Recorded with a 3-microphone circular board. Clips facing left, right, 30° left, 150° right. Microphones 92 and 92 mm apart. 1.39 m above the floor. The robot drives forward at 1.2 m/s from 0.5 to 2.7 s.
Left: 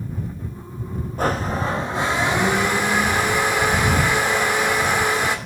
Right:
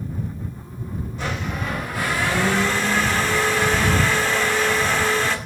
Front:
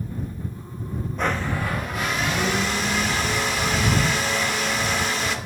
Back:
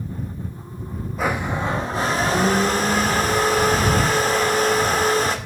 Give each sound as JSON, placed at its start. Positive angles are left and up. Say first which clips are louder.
{"t": 1.2, "sound": "a blender", "louder": "left 7 dB, back 2 dB", "azimuth_deg": 125, "distance_m": 1.0}